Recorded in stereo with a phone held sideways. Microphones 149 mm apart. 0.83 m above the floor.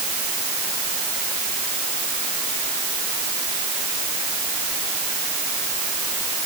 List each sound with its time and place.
Only background noise.